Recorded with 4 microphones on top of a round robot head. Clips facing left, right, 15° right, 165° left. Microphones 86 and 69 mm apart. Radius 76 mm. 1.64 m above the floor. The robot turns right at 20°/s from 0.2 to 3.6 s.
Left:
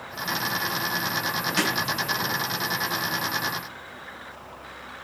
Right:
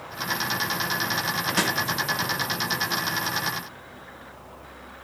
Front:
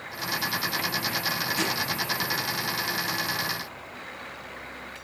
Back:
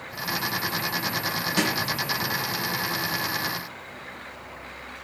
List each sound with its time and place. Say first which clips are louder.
1.6 s a snare drum: even, back 5 dB; 170° right, 2.5 m